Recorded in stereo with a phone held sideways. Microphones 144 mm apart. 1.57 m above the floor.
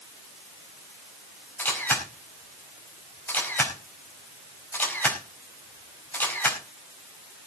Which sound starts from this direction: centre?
A camera shutter, at 1.6 s.